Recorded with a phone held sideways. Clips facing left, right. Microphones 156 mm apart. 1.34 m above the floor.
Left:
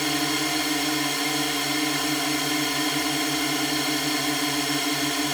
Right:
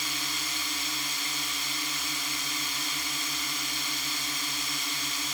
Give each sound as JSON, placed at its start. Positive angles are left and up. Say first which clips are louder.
{"t": 0.0, "sound": "a drone", "louder": "left 14 dB", "side_deg": 75}